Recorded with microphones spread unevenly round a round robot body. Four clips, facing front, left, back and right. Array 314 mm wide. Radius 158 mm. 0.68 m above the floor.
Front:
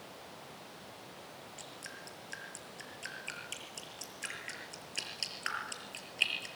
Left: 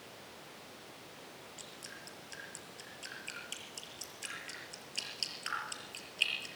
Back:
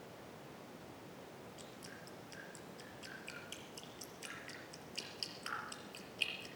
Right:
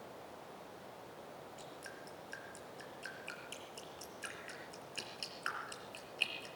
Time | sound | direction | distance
1.6 | dripping | 15° right | 5 m